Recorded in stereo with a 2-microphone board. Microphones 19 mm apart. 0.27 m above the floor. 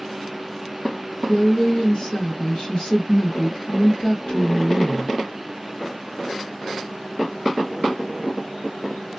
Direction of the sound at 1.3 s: 45° left (ahead or behind).